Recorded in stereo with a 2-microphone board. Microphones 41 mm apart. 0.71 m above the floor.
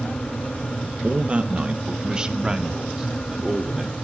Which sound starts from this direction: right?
A man speaking, at 1.0 s.